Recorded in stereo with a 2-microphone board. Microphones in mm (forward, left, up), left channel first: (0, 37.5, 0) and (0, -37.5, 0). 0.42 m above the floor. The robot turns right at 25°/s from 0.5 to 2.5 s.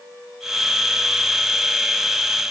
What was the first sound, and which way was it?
Only background noise.